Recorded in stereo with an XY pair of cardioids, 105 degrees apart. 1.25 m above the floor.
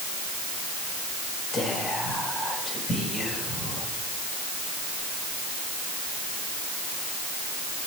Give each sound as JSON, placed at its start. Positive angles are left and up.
{"t": 1.5, "sound": "whispering", "azimuth_deg": 40, "distance_m": 5.0}